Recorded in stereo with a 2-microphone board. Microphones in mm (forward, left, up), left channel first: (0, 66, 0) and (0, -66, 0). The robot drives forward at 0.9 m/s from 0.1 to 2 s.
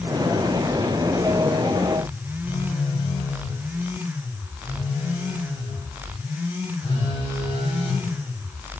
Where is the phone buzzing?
45° left (ahead or behind), 1.7 m.